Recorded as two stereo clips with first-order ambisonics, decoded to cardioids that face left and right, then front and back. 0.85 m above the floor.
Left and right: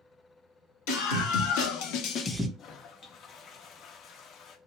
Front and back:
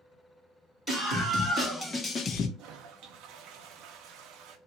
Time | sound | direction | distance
0.9 | a scream | 90° left | 1.8 m
2.6 | a toilet flushing | 145° left | 0.5 m